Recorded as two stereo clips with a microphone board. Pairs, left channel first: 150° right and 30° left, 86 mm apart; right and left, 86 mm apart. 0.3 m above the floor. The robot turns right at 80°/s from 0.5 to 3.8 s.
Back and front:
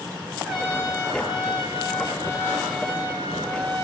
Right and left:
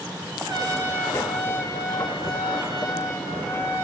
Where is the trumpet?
115° left, 1.2 m; by 3.8 s 20° left, 1.2 m.